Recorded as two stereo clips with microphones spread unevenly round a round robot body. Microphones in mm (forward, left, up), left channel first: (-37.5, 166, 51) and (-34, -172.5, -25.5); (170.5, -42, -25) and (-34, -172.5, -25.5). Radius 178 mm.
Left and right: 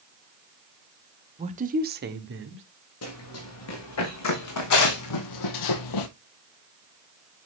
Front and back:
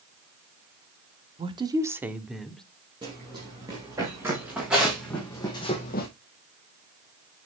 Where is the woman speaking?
105° right, 1.2 m; by 2.6 s 55° right, 1.7 m.